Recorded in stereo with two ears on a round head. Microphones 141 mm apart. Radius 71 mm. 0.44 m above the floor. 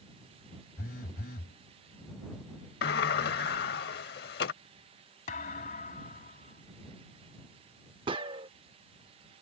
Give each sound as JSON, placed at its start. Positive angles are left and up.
{"t": 0.8, "sound": "a phone buzzing", "side_deg": 65}
{"t": 2.8, "sound": "a sliding door", "side_deg": 70}
{"t": 5.3, "sound": "a thud", "side_deg": 55}
{"t": 8.1, "sound": "a gunshot", "side_deg": -30}